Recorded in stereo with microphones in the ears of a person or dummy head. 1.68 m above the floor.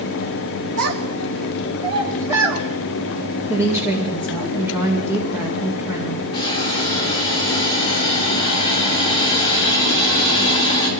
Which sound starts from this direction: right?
A child speaking, at 0.8 s.